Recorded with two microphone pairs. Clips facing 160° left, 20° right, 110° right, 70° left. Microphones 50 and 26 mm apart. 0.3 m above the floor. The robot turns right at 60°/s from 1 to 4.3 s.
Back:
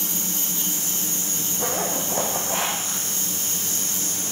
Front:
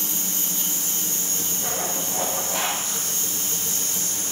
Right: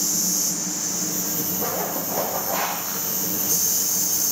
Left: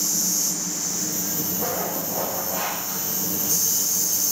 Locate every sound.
1.6 s a zipper: 150° left, 9.5 m; by 3.1 s 120° right, 9.5 m